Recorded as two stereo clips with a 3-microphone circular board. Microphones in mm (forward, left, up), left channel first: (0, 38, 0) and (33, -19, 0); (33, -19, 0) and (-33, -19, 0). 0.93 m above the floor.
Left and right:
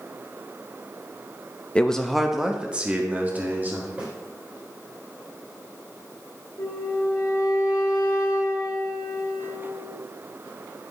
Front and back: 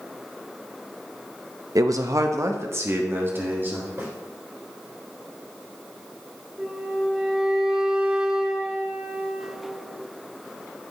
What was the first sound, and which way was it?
A man speaking, 170° right.